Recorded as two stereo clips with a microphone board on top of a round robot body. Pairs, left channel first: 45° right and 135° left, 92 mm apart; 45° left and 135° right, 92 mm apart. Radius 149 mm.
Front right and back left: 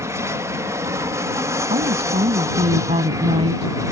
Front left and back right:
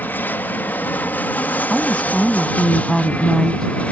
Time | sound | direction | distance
0.0 | an aircraft | 105° left | ?
1.7 | a woman speaking | 135° left | ?